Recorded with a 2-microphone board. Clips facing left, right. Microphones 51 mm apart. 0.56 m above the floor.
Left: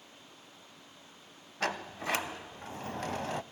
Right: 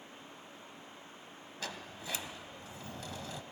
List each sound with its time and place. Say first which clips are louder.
1.6 s a sliding door: left 10 dB; 60° left (ahead or behind), 0.6 m